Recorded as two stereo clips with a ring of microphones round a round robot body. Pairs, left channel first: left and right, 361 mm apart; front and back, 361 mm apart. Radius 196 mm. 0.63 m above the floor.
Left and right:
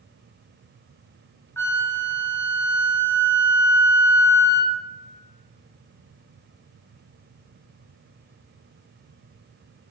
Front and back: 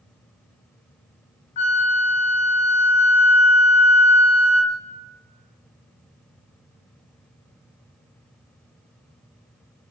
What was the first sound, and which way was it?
A flute, 10° left.